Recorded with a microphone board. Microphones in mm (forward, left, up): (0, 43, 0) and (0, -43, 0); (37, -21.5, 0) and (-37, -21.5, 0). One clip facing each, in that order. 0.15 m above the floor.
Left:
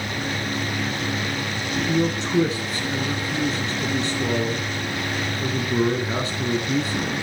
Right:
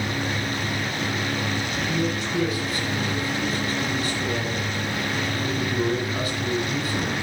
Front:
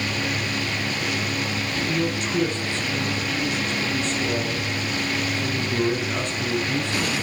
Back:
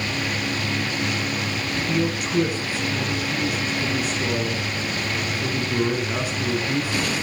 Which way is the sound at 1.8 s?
100° left.